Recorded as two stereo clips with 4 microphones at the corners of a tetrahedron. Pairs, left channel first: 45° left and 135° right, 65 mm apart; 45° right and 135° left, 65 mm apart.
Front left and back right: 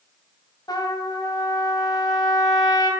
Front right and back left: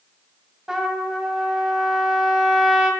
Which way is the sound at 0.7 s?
55° left.